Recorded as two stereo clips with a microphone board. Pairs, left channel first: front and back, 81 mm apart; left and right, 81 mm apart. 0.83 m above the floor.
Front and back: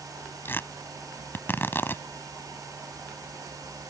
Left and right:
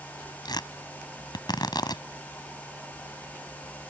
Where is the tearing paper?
65° left.